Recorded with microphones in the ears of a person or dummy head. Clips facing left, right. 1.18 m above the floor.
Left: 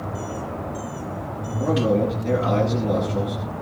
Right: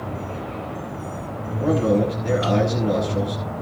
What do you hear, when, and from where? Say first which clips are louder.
1.6 s a man speaking: right 1 dB; centre (ahead or behind), 9.5 m